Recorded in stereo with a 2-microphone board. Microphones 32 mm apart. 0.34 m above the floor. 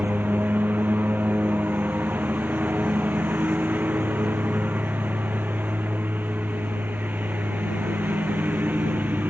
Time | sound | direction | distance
0.0 | a lawn mower | 70° right (ahead or behind) | ?